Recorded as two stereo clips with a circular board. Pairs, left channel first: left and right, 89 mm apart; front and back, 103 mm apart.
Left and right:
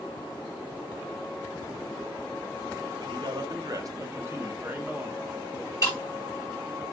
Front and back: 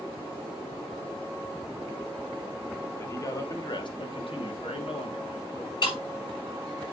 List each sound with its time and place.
3.0 s a man speaking: 65° right, 1.4 m; by 5.7 s 10° right, 2.5 m
5.8 s breaking glass: 35° left, 5.5 m